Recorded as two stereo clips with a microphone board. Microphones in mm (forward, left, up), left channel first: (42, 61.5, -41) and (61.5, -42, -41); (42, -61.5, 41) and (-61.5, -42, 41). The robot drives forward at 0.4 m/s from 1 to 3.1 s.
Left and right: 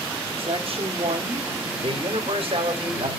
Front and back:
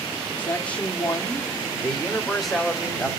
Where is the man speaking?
90° right, 2.5 m; by 3.1 s 110° right, 2.5 m.